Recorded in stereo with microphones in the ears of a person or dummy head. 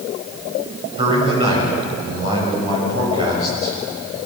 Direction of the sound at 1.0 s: 30° right (ahead or behind).